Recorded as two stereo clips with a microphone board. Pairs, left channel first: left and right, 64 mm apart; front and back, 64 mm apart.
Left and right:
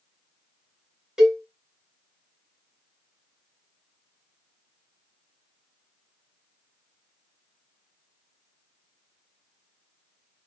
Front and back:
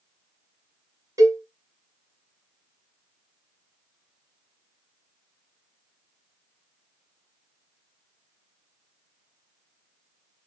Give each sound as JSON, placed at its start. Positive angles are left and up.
{"t": 1.2, "sound": "a cowbell", "azimuth_deg": -170, "distance_m": 0.9}